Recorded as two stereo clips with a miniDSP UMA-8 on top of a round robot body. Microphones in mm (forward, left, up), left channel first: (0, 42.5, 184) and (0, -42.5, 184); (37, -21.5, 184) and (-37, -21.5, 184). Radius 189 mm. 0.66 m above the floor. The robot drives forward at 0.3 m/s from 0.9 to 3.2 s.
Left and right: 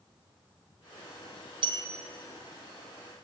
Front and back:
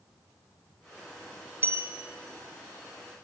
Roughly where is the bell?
Behind right.